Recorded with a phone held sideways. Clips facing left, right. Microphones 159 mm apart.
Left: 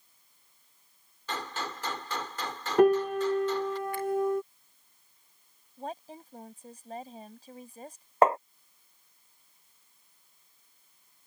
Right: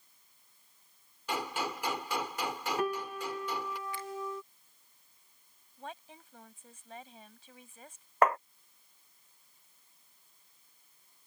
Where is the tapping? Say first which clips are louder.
Left 4 dB; 30° left (ahead or behind).